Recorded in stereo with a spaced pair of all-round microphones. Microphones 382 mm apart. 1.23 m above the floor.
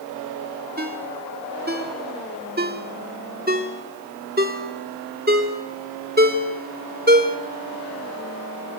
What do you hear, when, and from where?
0.8 s a ringtone: 25° right (ahead or behind), 1.9 m